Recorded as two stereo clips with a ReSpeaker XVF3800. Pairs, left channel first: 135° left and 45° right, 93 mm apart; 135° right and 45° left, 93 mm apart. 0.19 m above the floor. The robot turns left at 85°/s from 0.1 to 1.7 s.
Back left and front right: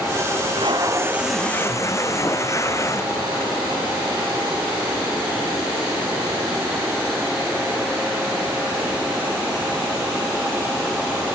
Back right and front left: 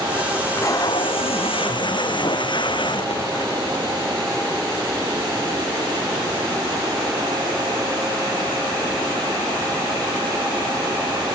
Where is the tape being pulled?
55° right; by 3.6 s 165° right.